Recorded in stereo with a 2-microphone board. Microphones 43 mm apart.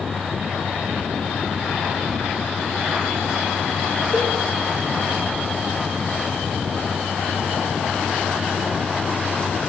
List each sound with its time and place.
4.1 s a cowbell: 25° left (ahead or behind), 1.7 m